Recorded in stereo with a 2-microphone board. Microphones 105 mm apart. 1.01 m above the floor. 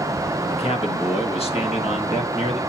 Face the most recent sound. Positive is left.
turn(degrees=70)  # may be behind; listen again after turning